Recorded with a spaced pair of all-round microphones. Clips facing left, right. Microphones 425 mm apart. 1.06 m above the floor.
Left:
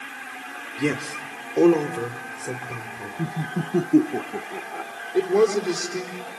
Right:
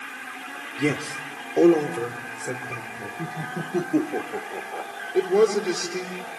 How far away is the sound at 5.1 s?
About 3.5 m.